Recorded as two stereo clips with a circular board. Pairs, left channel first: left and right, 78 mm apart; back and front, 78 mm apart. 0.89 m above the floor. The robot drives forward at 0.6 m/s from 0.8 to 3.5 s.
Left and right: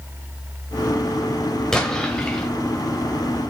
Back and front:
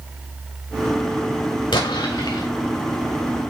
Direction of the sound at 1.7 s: 170° left.